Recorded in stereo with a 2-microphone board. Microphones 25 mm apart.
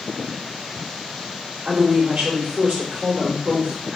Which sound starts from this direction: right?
A woman speaking, at 1.6 s.